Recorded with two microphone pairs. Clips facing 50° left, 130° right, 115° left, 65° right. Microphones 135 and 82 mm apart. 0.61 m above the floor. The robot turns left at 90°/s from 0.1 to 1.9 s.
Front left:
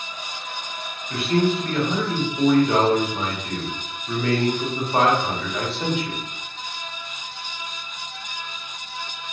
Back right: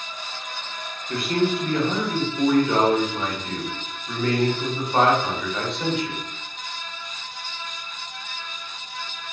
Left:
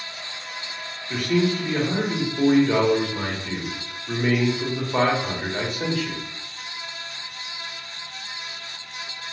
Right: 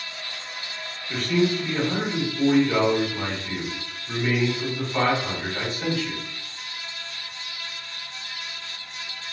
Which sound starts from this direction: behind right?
A man speaking, at 1.1 s.